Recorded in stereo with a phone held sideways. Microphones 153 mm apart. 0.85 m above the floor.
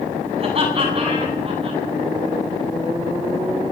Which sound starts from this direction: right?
Laughter, at 0.4 s.